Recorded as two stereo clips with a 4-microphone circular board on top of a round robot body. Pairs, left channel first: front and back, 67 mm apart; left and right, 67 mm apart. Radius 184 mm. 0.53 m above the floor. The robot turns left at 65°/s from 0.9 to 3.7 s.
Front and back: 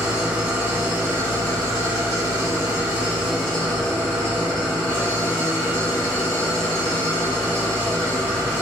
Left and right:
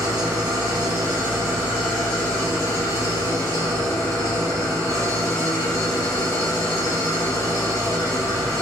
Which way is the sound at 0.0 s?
110° right.